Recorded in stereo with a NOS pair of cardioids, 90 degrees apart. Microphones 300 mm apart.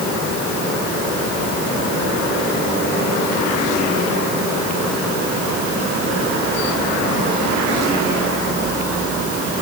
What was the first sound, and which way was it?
Only background noise.